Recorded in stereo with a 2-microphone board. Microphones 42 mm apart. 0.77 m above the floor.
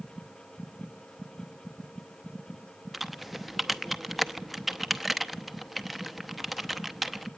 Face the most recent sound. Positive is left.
turn(degrees=0)  # may be behind; listen again after turning